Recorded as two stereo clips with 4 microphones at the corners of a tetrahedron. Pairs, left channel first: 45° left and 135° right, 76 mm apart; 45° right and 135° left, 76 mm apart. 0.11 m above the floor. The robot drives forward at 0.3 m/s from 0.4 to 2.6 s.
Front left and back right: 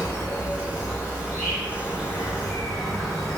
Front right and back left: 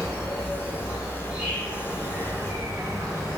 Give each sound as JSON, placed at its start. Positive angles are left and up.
{"t": 0.0, "sound": "an insect", "azimuth_deg": 80, "distance_m": 1.7}